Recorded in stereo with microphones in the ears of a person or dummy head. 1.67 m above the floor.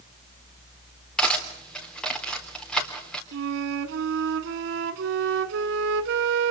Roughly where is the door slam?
I don't hear a door slam.